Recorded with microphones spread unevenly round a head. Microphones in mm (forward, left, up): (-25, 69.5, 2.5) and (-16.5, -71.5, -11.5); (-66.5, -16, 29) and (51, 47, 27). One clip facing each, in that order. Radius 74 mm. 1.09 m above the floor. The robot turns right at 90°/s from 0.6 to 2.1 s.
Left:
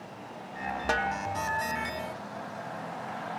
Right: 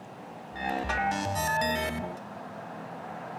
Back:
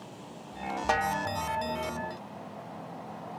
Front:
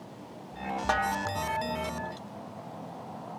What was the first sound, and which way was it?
A snare drum, 130° left.